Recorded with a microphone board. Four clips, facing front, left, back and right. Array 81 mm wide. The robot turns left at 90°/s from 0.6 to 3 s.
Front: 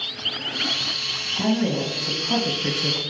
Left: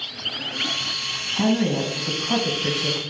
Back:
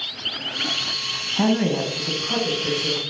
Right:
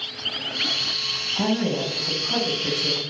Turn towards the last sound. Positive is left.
turn(degrees=30)